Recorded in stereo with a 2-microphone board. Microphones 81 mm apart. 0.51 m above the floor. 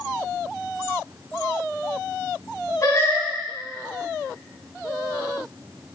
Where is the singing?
45° left (ahead or behind), 3 m.